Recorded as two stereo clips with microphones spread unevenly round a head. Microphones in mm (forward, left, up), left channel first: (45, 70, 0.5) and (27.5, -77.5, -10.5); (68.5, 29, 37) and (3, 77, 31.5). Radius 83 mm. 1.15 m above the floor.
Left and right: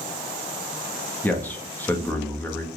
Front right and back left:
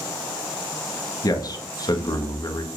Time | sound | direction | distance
1.2 | a man speaking | 5° left | 1.5 m